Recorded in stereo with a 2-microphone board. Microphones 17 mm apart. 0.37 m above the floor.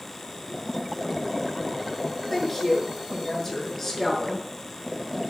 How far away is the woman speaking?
About 5.5 m.